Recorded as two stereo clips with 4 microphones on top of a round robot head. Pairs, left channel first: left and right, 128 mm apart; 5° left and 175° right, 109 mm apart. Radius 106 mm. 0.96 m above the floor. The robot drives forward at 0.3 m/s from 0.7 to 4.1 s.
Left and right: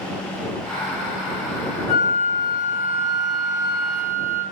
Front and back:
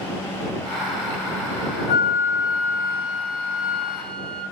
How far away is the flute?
About 1.9 m.